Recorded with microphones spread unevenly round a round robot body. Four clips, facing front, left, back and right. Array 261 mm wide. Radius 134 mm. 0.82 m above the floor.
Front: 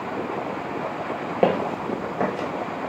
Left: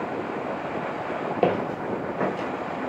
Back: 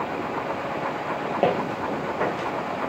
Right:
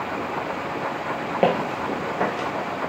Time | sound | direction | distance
1.4 | footsteps | 20° right | 0.8 m